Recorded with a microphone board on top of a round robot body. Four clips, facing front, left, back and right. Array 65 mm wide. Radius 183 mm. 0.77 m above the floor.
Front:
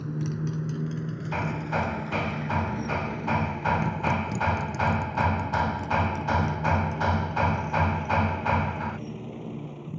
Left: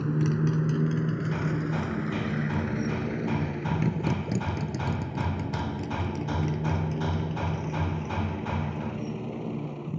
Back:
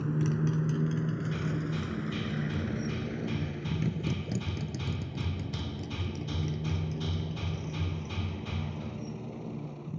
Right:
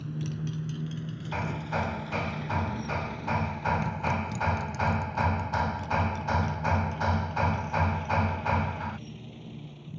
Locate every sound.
0.0 s a motorcycle: 100° left; by 10.0 s 80° left
1.3 s hammering: 25° right